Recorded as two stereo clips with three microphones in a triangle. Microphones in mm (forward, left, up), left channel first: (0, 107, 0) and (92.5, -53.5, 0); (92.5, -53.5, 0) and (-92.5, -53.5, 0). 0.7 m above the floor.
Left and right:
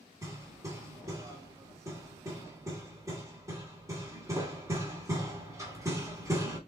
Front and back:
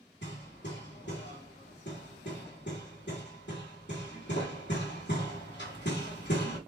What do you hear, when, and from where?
0.2 s hammering: 15° left, 1.6 m